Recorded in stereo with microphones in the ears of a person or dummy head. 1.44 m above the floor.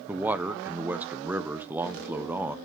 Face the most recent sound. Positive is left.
turn(degrees=-10)  # may be behind; listen again after turning